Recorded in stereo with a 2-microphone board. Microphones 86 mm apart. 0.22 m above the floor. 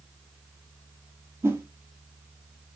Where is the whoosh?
30° right (ahead or behind), 1.0 m.